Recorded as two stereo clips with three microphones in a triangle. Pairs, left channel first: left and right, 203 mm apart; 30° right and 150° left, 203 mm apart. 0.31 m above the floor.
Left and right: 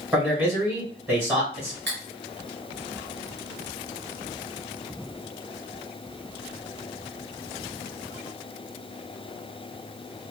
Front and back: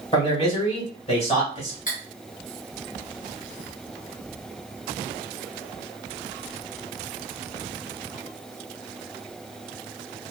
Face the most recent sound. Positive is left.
turn(degrees=-80)